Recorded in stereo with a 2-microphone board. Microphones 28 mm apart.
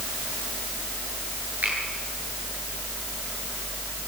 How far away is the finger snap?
About 9.5 m.